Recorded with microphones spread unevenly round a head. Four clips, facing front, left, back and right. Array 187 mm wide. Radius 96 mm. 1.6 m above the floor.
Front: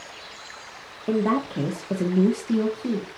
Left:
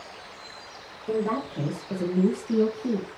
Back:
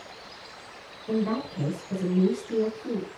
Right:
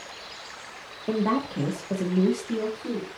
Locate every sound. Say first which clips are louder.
1.1 s a woman speaking: right 2 dB, front 5 dB; 25° right, 1.5 m; by 3.1 s 20° left, 1.4 m